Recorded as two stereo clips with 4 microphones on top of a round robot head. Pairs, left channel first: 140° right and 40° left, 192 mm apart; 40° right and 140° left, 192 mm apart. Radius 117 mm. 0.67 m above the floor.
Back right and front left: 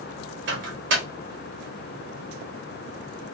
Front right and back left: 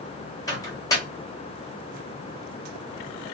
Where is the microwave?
30° left, 1.0 m.